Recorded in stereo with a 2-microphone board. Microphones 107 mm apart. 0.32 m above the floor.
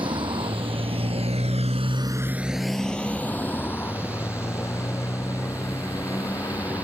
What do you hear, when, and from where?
0.0 s a motorcycle: 50° right (ahead or behind); by 6.8 s 30° left (ahead or behind)